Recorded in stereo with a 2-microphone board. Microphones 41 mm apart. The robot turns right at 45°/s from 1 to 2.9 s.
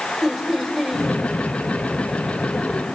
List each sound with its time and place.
0.2 s laughter: 5° left (ahead or behind), 3 m